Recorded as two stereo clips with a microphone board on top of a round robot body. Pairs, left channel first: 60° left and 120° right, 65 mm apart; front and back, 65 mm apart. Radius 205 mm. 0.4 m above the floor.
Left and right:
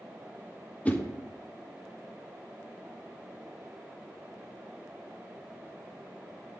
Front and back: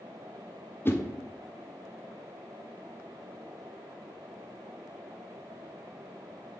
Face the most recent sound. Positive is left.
turn(degrees=10)